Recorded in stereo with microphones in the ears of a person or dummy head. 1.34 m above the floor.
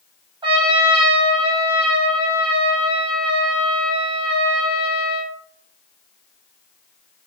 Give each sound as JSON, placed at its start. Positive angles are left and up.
{"t": 0.4, "sound": "a trumpet", "side_deg": -20, "distance_m": 0.9}